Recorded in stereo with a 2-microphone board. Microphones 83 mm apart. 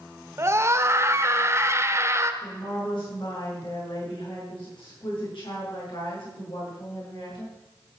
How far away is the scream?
About 1.3 m.